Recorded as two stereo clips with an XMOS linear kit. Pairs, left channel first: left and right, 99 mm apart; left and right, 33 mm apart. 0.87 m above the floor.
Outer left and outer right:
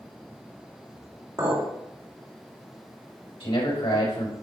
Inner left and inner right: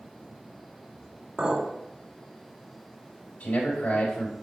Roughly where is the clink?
Right.